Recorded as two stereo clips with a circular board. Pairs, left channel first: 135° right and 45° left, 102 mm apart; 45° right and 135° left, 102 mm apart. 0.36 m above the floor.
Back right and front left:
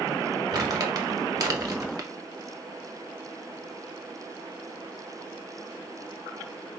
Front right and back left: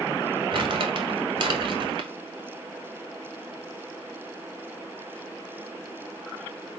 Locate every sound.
0.5 s crumpling: 95° left, 1.1 m